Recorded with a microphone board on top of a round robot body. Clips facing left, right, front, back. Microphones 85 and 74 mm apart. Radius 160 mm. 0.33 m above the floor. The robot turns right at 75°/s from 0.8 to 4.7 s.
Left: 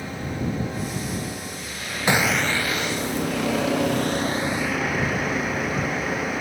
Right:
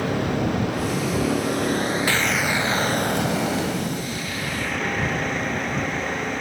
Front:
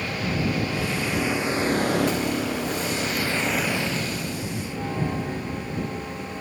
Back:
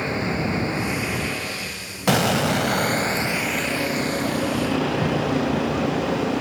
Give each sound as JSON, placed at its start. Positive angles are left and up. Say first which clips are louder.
{"t": 0.0, "sound": "a vehicle", "louder": "right 6 dB, back 2 dB", "azimuth_deg": -115}
{"t": 2.1, "sound": "an explosion", "louder": "left 1 dB, back 5 dB", "azimuth_deg": 160}